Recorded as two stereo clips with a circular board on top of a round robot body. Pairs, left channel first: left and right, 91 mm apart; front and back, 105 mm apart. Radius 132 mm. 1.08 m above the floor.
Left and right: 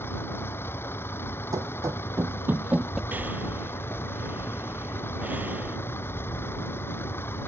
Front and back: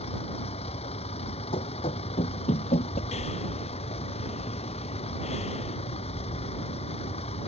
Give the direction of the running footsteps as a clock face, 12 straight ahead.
1 o'clock.